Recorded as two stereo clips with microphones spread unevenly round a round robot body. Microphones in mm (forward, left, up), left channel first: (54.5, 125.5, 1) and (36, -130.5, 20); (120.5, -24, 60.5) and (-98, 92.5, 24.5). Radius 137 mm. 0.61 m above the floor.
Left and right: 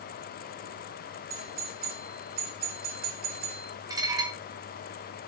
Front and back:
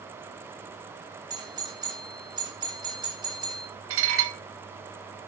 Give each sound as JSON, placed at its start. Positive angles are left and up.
{"t": 1.3, "sound": "a doorbell", "azimuth_deg": -145, "distance_m": 2.5}
{"t": 3.9, "sound": "dishes clattering", "azimuth_deg": -170, "distance_m": 1.5}